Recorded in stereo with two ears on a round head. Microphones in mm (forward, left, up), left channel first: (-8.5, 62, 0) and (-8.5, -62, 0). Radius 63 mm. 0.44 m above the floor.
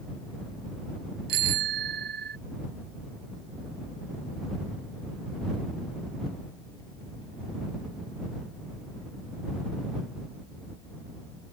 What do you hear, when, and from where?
1.3 s a bicycle bell: 85° right; by 2.4 s 75° right (ahead or behind)